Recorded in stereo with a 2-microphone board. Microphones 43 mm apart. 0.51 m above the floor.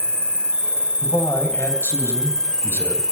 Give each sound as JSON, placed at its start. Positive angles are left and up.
{"t": 0.0, "sound": "an insect", "side_deg": 15, "distance_m": 2.5}
{"t": 1.0, "sound": "a man speaking", "side_deg": 70, "distance_m": 2.5}